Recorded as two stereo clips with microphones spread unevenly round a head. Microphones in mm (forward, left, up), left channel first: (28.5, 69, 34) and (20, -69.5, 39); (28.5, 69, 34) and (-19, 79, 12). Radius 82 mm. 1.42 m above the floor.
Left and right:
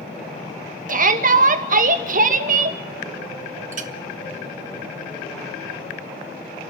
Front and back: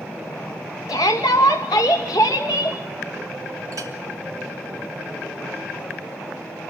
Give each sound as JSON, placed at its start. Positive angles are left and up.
{"t": 0.9, "sound": "a shout", "azimuth_deg": -65, "distance_m": 2.0}
{"t": 3.7, "sound": "a clink", "azimuth_deg": -135, "distance_m": 0.9}